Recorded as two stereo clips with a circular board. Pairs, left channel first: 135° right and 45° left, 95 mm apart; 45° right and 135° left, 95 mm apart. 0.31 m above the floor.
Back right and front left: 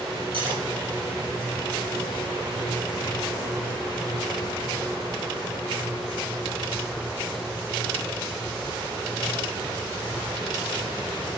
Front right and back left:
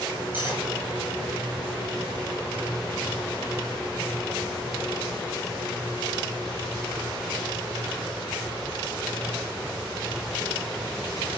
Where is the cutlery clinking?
65° left, 4 m.